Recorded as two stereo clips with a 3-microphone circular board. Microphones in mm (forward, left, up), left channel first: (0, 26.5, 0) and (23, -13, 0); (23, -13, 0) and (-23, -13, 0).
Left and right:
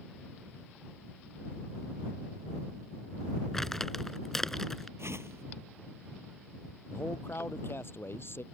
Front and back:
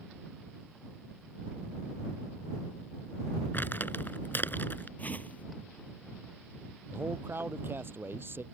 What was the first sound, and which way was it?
Crumpling, 35° left.